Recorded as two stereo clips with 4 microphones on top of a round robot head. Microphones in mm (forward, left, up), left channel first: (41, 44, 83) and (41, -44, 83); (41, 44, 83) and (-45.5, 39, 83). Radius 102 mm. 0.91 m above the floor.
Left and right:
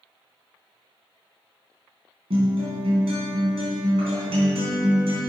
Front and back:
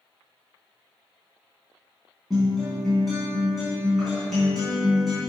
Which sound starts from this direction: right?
A guitar, at 2.3 s.